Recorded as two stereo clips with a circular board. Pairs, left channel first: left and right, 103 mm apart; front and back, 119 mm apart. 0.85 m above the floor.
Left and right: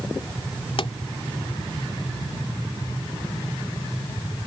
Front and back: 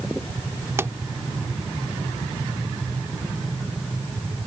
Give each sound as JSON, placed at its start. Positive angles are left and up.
{"t": 0.8, "sound": "a pop", "azimuth_deg": 115}